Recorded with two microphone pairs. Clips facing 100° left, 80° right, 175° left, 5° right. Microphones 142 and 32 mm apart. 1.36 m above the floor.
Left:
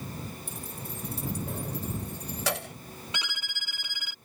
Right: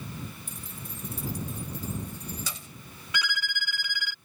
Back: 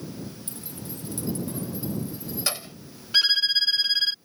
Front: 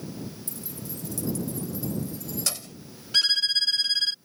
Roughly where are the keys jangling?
Behind left.